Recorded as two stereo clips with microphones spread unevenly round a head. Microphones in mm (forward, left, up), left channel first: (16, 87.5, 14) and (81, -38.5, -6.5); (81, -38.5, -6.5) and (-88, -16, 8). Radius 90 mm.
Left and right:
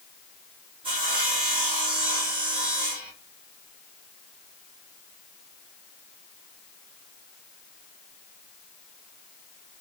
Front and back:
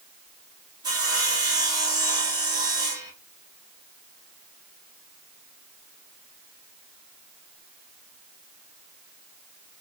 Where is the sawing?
125° right, 2.0 m.